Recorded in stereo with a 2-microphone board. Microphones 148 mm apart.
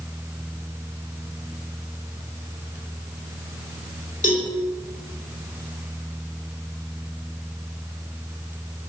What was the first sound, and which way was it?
A cowbell, 60° left (ahead or behind).